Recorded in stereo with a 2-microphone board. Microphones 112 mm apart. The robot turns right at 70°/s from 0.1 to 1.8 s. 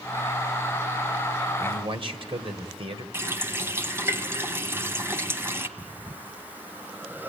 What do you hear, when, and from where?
1.6 s a man speaking: 45° right (ahead or behind), 2 m; by 3.0 s 50° right (ahead or behind), 2 m
3.1 s a running tap: 20° right (ahead or behind), 2.0 m
5.8 s breathing: 15° right (ahead or behind), 1.7 m